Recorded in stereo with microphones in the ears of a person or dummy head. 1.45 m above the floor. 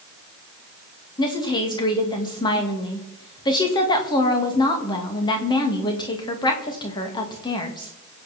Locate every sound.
1.2 s a woman speaking: 25° left (ahead or behind), 2.5 m